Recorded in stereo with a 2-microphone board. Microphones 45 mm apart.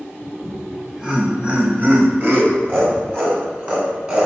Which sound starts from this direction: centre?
Laughter, at 0.4 s.